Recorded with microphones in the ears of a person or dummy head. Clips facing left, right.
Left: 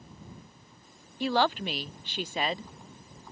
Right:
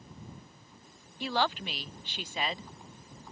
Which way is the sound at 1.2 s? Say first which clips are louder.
Left 5 dB; 45° left (ahead or behind).